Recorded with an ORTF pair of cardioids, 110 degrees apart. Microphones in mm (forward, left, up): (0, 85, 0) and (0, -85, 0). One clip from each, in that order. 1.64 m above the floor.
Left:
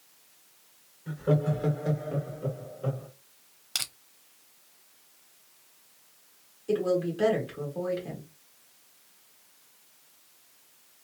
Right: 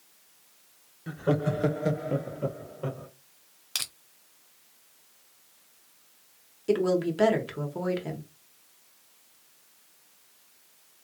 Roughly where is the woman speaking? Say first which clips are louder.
Right 2 dB; ahead right.